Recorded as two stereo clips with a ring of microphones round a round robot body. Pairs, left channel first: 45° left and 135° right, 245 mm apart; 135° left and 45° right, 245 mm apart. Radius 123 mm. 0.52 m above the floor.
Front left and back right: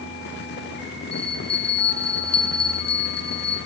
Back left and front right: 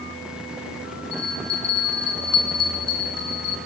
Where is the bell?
110° left, 4 m.